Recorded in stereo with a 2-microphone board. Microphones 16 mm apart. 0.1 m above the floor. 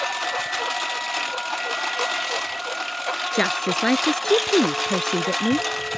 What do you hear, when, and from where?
0.0 s a lawn mower: centre (ahead or behind)
3.3 s a woman speaking: 35° left (ahead or behind)